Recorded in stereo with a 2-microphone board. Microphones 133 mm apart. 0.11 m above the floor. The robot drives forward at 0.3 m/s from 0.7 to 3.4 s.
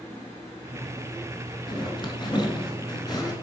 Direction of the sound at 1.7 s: 35° left (ahead or behind).